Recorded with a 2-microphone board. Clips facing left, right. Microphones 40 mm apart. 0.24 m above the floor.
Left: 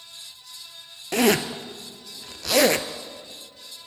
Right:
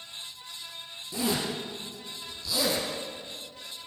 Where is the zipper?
70° left (ahead or behind), 1.1 m.